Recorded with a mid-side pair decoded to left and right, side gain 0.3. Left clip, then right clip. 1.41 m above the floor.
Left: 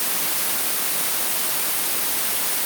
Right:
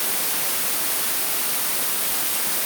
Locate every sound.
Only background noise.